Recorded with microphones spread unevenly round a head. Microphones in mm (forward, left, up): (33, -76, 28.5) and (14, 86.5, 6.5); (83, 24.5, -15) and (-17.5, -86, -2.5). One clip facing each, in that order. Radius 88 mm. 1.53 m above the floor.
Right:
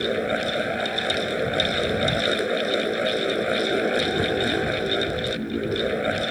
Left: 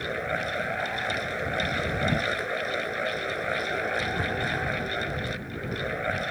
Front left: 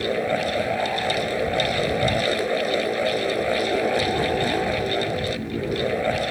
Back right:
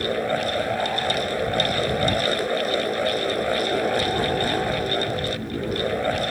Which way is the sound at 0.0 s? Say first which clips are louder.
Right 7 dB, front left 1 dB; 35° right.